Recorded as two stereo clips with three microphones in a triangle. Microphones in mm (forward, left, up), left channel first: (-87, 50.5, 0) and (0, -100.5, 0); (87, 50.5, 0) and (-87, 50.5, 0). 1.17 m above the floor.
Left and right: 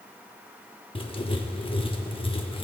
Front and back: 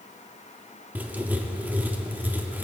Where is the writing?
110° left, 0.7 m.